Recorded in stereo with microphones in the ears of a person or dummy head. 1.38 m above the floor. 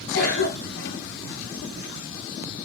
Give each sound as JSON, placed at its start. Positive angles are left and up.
{"t": 0.1, "sound": "a cough", "side_deg": 55, "distance_m": 3.5}